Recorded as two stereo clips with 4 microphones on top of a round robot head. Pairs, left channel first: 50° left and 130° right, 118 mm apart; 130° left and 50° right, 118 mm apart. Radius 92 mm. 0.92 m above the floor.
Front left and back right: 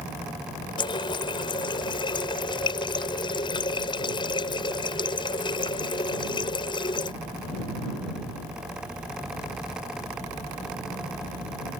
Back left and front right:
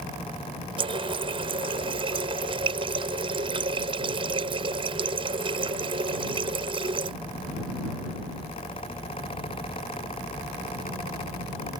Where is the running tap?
Straight ahead.